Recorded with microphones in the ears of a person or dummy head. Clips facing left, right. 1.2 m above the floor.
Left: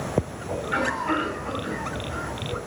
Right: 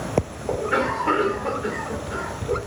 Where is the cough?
65° right (ahead or behind), 3.5 m.